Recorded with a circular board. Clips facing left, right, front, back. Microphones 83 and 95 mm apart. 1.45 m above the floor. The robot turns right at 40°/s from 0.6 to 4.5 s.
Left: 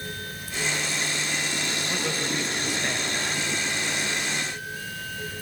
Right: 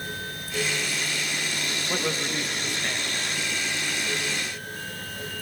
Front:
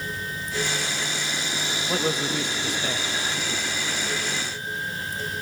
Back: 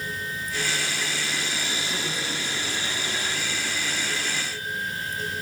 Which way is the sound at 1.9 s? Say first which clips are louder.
Right 2 dB, front 6 dB; 25° right.